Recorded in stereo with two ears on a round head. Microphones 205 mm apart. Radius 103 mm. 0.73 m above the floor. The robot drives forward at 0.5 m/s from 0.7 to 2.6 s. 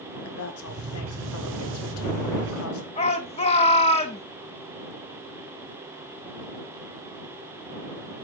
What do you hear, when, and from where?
0.2 s a woman speaking: 65° left (ahead or behind), 2 m
3.0 s a shout: 30° left (ahead or behind), 1.3 m